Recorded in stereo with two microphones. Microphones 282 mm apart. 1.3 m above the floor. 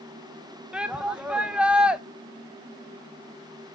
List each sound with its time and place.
0.7 s a shout: 5° right (ahead or behind), 0.7 m